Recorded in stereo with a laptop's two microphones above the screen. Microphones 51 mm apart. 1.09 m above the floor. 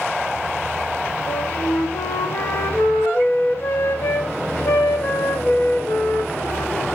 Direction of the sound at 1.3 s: 45° left (ahead or behind).